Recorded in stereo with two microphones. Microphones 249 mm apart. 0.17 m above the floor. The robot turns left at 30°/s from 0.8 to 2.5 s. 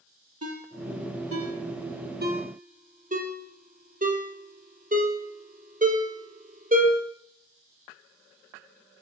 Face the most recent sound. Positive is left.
turn(degrees=-35)  # may be behind; listen again after turning